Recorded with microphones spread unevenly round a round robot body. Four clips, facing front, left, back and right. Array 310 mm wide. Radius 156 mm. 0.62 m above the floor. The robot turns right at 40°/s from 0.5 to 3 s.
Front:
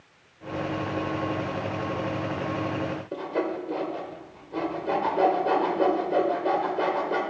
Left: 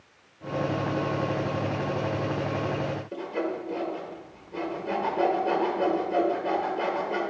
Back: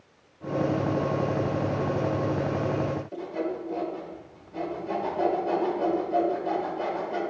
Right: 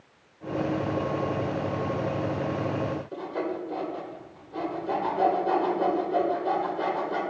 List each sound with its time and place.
3.1 s sawing: 15° left, 1.8 m